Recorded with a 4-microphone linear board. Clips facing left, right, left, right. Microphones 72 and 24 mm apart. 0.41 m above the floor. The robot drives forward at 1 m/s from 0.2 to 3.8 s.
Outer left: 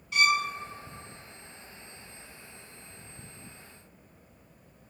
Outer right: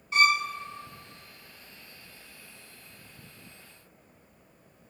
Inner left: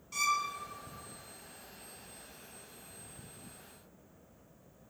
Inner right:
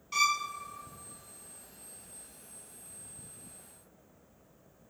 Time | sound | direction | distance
0.1 | a violin | 35° right (ahead or behind) | 0.8 m